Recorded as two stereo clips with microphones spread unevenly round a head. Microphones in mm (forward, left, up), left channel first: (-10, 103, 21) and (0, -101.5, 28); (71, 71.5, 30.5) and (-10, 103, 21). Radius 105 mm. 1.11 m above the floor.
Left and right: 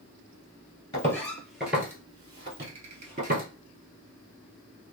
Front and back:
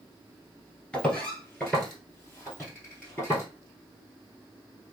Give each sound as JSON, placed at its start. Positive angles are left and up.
{"t": 0.9, "sound": "footsteps", "azimuth_deg": 35, "distance_m": 1.1}